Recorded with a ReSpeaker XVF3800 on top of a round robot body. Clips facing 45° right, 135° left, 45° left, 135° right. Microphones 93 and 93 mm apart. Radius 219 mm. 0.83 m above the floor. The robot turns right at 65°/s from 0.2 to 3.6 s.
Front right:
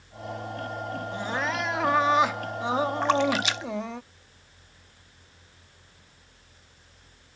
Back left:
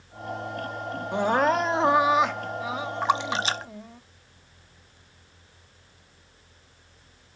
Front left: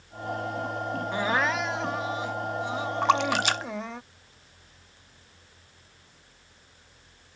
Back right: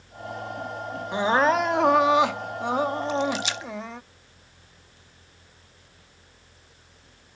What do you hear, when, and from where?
1.1 s crying: 150° left; by 4.0 s 45° right
3.0 s a splash: 50° left; by 5.0 s 90° left